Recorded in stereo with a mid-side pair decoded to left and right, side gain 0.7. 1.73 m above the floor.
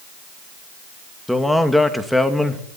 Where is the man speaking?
5° left, 2.5 m.